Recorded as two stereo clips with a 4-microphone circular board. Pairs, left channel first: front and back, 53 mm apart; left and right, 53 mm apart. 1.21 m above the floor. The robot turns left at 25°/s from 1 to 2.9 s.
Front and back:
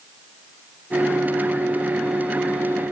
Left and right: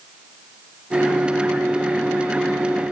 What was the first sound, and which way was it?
Only background noise.